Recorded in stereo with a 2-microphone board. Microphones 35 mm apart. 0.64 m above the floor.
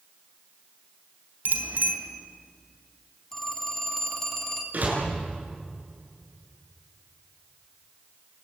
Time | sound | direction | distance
1.4 | a bicycle bell | 60° right (ahead or behind) | 3.5 m
3.3 | a phone ringing | 15° left (ahead or behind) | 2.5 m
4.7 | a door slam | 45° right (ahead or behind) | 8 m